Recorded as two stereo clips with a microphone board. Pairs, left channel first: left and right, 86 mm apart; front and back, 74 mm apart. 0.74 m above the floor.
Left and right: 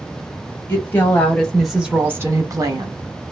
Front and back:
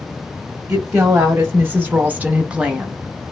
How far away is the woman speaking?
About 0.8 m.